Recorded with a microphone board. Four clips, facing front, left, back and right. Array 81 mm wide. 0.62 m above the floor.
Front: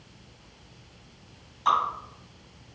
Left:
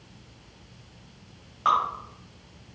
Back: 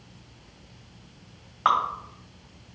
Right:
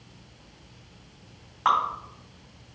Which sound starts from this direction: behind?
Dripping, at 1.6 s.